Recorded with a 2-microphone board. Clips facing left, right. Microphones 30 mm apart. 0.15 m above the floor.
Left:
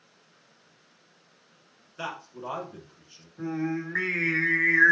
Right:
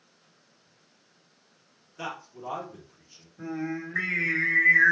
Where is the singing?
60° left (ahead or behind), 1.7 m.